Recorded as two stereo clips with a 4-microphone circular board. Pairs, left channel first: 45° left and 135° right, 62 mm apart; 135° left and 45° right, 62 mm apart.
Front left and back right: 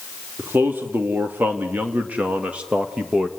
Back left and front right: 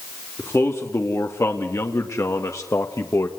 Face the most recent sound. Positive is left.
turn(degrees=150)